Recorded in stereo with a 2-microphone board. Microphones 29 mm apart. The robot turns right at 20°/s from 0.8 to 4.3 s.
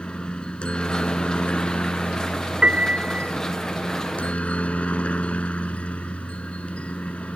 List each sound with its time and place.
0.0 s a helicopter: 50° left; by 7.4 s 120° left
2.6 s a piano: 55° right (ahead or behind); by 3.3 s 65° right (ahead or behind)